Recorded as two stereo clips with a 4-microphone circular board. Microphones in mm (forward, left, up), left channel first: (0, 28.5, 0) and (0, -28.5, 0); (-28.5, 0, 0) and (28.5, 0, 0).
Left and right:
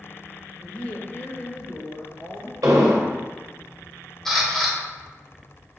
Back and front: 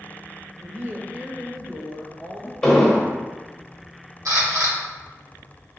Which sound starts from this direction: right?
An explosion, at 2.6 s.